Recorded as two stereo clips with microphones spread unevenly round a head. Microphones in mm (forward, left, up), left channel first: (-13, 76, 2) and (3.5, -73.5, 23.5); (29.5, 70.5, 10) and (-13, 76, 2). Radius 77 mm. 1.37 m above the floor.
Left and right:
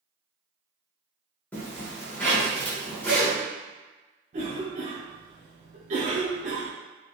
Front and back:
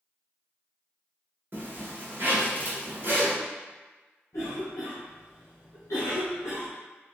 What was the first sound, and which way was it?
A zipper, straight behind.